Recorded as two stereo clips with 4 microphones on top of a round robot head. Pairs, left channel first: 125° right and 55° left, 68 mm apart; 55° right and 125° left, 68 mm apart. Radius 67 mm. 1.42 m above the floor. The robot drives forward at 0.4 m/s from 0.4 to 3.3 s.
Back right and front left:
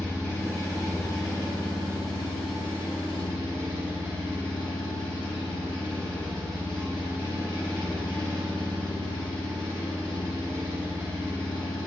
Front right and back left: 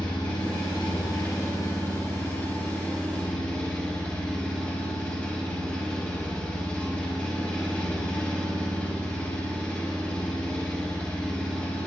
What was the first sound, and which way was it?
An engine running, 75° right.